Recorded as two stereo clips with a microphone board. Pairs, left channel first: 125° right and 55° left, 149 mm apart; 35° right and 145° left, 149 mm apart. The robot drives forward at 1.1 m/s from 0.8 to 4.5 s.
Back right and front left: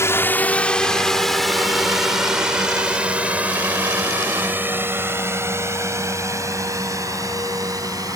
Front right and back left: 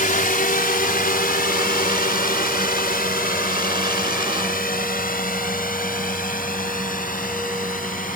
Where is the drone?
55° right; by 8.2 s 10° right.